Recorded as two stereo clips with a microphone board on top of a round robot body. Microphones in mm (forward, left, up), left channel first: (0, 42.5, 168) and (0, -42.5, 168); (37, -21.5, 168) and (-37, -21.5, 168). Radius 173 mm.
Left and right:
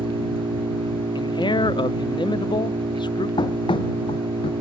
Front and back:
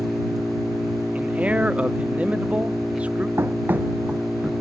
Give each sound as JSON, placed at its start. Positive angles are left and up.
{"t": 0.0, "sound": "an engine running", "azimuth_deg": -90}
{"t": 1.1, "sound": "a man speaking", "azimuth_deg": 110}
{"t": 3.4, "sound": "running footsteps", "azimuth_deg": 120}